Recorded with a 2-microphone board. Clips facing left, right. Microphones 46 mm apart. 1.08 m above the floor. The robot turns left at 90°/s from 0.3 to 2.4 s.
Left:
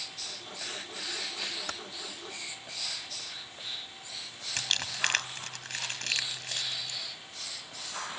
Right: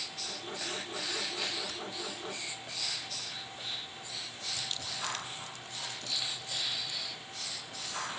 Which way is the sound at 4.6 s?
75° left (ahead or behind).